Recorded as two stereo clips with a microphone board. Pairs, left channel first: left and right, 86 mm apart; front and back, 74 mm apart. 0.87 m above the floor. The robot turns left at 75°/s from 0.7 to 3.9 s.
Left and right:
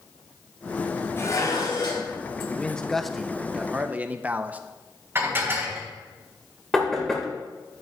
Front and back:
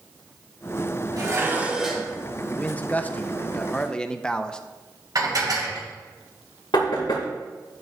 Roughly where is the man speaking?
Ahead left.